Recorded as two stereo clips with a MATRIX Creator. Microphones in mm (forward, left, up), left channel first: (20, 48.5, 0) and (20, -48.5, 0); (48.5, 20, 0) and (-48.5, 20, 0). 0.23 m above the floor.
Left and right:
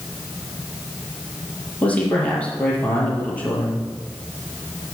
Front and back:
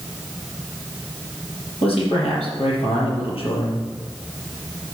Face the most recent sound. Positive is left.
turn(degrees=15)